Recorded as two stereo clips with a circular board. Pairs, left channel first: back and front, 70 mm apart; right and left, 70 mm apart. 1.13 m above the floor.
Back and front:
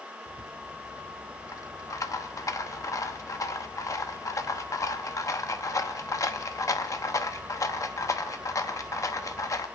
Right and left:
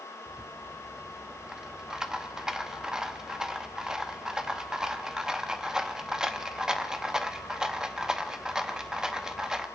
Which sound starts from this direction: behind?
A rattle, at 0.3 s.